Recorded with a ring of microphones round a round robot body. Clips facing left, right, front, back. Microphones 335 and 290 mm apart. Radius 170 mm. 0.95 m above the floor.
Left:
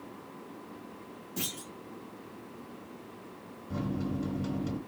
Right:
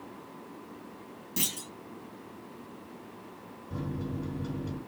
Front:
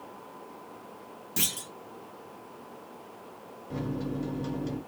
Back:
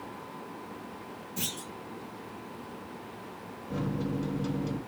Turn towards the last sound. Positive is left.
turn(degrees=95)